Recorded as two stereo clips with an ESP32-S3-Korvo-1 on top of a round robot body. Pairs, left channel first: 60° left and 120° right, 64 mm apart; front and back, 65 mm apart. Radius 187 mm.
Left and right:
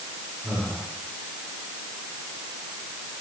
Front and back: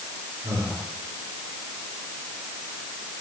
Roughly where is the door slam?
I don't hear a door slam.